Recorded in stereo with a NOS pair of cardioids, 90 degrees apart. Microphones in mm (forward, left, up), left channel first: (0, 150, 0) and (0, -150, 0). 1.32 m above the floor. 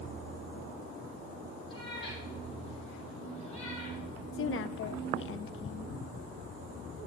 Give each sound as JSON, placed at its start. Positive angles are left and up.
{"t": 1.7, "sound": "a cat meowing", "azimuth_deg": 15, "distance_m": 5.5}
{"t": 4.3, "sound": "a woman speaking", "azimuth_deg": 45, "distance_m": 0.6}